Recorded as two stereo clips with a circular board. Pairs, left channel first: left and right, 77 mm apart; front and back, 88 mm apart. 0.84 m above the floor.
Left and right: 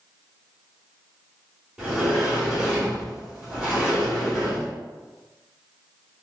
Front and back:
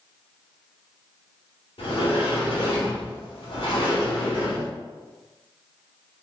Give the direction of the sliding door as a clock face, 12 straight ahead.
12 o'clock.